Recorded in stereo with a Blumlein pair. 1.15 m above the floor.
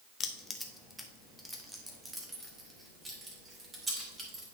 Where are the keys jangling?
20° left, 0.8 m; by 4.5 s 15° right, 3 m.